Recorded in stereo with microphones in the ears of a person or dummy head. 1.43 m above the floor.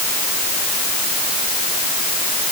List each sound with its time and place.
Only background noise.